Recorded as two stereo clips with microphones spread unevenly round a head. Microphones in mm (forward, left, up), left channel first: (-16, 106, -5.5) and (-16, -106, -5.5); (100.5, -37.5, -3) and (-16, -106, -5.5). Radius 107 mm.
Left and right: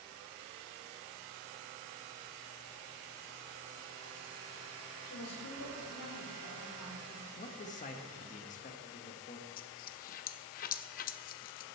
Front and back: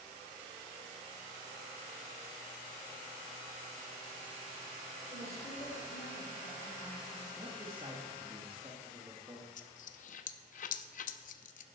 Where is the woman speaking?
95° left, 3.5 m.